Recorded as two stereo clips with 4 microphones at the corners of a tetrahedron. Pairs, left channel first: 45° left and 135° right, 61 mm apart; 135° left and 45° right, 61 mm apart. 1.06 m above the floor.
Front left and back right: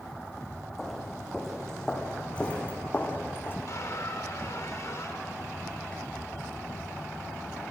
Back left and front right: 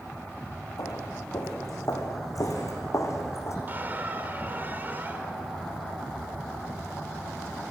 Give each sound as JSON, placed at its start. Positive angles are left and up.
{"t": 0.8, "sound": "footsteps", "azimuth_deg": 135, "distance_m": 5.0}
{"t": 3.7, "sound": "a squeak", "azimuth_deg": 10, "distance_m": 2.5}